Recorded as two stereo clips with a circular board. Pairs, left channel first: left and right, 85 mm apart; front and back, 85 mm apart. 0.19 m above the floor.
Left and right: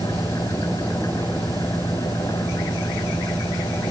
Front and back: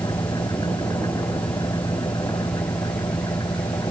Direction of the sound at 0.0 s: 40° left.